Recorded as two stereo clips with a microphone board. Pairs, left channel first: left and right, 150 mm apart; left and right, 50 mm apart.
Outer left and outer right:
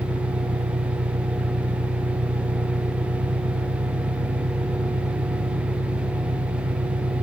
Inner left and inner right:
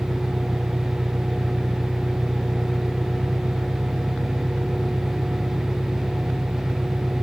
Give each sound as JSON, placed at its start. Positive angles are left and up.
{"t": 0.0, "sound": "an engine running", "side_deg": -85}